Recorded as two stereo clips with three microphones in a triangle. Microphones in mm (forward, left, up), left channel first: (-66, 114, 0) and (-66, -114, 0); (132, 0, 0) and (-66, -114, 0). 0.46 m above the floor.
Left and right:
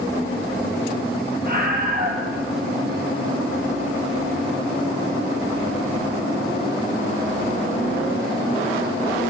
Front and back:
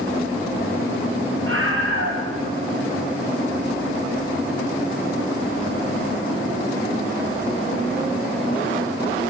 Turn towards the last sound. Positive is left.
turn(degrees=-135)